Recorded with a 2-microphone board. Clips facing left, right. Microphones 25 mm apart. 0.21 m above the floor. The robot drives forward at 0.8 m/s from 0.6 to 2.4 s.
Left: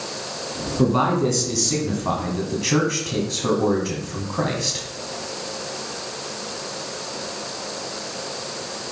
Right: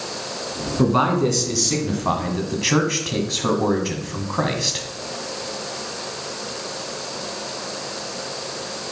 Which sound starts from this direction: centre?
A man speaking, at 0.8 s.